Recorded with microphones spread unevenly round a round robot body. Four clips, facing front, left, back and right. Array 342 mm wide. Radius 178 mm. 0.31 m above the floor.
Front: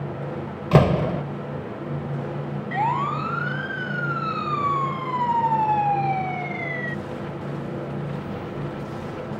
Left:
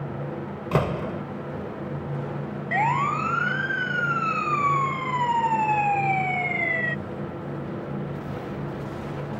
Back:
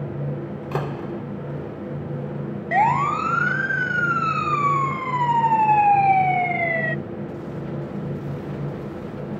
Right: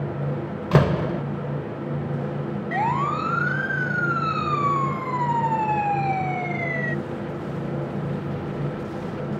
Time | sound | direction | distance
0.7 | a door slam | 20° right | ?
2.7 | a siren | straight behind | ?